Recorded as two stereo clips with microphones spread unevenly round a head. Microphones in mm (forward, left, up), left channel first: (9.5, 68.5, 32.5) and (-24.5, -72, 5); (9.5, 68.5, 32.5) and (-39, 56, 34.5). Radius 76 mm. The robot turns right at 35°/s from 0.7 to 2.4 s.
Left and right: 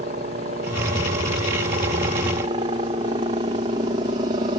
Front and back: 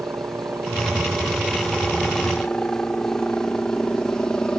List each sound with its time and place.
0.0 s a helicopter: 120° right; by 4.6 s 60° right